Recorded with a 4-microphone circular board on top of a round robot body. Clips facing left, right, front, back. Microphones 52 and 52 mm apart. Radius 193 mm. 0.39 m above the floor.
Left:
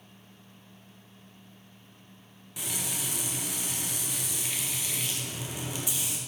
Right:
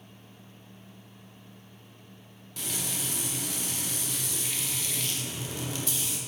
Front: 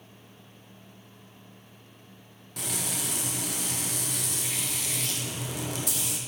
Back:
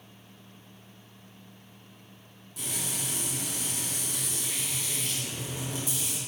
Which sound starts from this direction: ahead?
Frying, at 2.6 s.